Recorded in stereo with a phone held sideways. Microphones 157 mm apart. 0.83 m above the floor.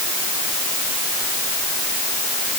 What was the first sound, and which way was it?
Only background noise.